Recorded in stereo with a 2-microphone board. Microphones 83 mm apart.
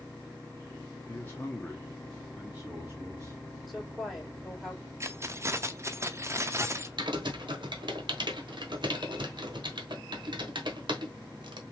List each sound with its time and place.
1.1 s a man speaking: 30° left (ahead or behind), 1.3 m; by 3.6 s 45° right (ahead or behind), 1.5 m
3.7 s a woman speaking: centre (ahead or behind), 2.5 m
5.0 s keys jangling: 35° right (ahead or behind), 0.6 m
7.0 s typing on a keyboard: 70° right (ahead or behind), 1.1 m